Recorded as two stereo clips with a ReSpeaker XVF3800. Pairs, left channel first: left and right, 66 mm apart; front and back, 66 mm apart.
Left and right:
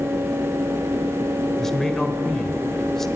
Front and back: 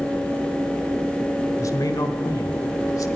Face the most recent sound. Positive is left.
turn(degrees=5)